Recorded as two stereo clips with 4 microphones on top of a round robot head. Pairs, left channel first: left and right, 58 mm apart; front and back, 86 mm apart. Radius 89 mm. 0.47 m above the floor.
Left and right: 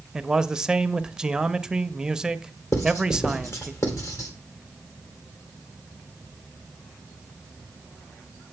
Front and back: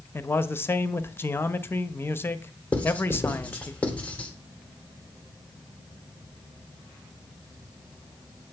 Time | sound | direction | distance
0.1 | a man speaking | 25° right | 0.8 m
2.7 | writing | 75° left | 2 m